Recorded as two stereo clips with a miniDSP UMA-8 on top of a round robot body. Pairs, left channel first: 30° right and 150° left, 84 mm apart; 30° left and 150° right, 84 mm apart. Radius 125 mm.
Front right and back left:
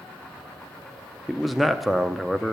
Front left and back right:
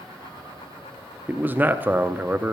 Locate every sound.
1.3 s a man speaking: 120° right, 0.7 m